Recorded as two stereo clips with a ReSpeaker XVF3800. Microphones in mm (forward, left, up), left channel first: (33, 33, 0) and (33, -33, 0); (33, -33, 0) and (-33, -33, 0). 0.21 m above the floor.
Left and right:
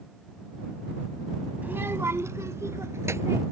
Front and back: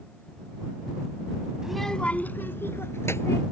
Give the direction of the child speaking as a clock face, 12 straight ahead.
4 o'clock.